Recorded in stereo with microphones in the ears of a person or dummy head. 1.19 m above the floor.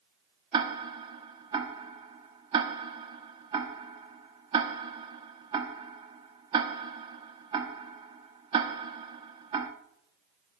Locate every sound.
0.5 s ticking: 25° right (ahead or behind), 1.0 m